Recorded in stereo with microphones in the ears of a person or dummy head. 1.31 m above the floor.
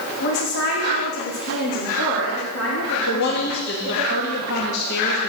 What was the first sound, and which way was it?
A woman speaking, 65° left (ahead or behind).